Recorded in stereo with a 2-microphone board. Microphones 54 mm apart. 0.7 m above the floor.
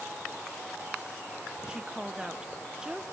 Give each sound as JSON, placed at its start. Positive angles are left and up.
{"t": 1.7, "sound": "a woman speaking", "side_deg": -15, "distance_m": 0.7}